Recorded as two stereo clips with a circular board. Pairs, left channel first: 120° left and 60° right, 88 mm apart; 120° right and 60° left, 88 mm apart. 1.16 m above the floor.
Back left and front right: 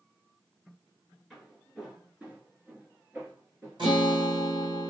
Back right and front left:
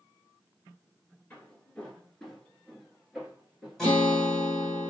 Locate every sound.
1.3 s footsteps: 145° right, 1.1 m; by 4.8 s 5° right, 1.8 m
3.8 s a guitar: 35° right, 2 m